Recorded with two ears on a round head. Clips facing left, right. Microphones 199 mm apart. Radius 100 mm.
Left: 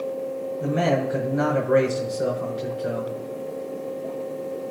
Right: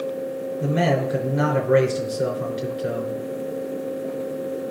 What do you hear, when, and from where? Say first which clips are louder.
0.6 s a man speaking: right 1 dB; 35° right (ahead or behind), 4 m